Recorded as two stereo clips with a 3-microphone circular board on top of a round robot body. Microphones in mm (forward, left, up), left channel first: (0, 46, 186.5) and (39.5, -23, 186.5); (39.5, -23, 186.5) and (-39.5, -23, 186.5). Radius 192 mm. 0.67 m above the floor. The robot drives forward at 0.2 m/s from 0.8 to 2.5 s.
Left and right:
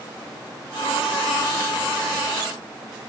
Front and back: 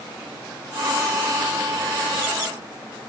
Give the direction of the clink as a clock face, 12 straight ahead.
No clink in this recording.